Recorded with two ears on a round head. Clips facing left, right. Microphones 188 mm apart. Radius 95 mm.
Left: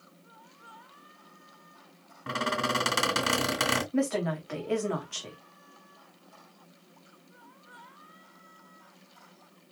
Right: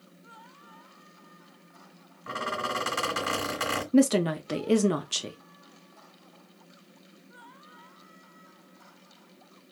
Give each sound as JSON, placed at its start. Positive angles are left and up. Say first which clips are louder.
{"t": 2.3, "sound": "a squeak", "louder": "left 3 dB", "side_deg": 55, "distance_m": 2.0}
{"t": 3.9, "sound": "a woman speaking", "louder": "right 9 dB", "side_deg": -45, "distance_m": 0.9}